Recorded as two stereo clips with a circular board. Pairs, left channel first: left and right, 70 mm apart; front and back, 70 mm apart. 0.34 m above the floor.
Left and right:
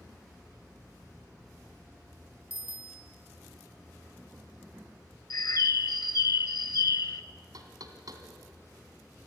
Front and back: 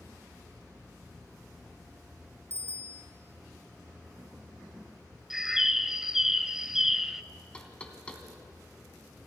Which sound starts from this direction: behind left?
A bicycle bell, at 2.5 s.